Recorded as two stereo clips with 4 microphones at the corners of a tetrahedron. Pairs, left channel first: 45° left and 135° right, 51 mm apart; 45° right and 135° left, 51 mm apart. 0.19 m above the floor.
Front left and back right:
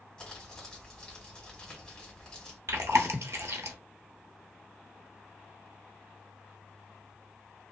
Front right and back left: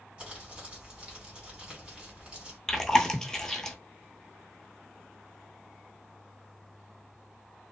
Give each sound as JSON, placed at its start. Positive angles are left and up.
{"t": 0.2, "sound": "crumpling", "azimuth_deg": 100, "distance_m": 1.5}
{"t": 2.7, "sound": "chewing", "azimuth_deg": -125, "distance_m": 0.6}